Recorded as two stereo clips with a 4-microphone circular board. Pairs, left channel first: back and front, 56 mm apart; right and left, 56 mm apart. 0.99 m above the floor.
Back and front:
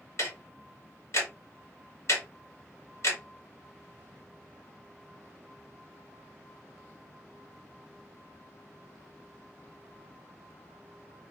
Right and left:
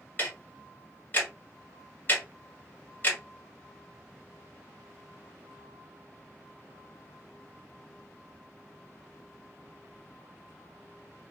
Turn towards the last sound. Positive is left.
turn(degrees=-150)